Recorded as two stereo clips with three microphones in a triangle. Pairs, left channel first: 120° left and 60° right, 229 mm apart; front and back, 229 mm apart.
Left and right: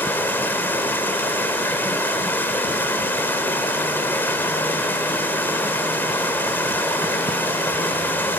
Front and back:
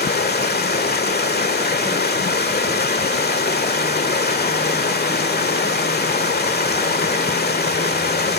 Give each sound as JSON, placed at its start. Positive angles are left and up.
{"t": 0.0, "sound": "running water", "azimuth_deg": 40, "distance_m": 1.7}